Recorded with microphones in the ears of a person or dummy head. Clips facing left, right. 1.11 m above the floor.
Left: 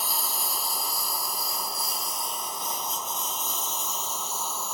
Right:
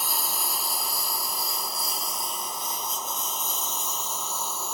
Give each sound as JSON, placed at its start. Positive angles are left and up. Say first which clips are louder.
{"t": 0.0, "sound": "a lawn mower", "louder": "right 1 dB", "side_deg": -40}